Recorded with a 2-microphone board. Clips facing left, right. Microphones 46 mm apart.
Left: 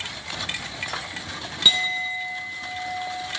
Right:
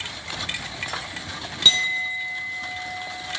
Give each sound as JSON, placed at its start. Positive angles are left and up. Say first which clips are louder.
{"t": 1.6, "sound": "a clink", "louder": "right 1 dB", "side_deg": 10, "distance_m": 0.8}